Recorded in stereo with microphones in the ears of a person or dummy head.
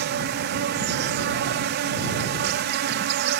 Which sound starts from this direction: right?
An insect, at 0.0 s.